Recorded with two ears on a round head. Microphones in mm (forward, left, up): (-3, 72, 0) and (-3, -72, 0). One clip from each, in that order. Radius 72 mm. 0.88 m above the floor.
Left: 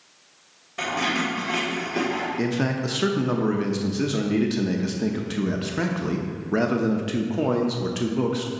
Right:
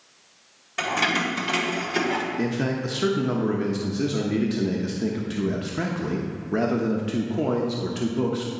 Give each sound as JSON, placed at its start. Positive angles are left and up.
{"t": 0.8, "sound": "keys jangling", "side_deg": -40, "distance_m": 2.5}
{"t": 2.4, "sound": "a man speaking", "side_deg": 15, "distance_m": 0.6}